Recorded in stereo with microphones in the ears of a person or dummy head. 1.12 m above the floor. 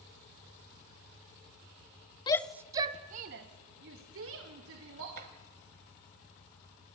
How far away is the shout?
About 0.6 m.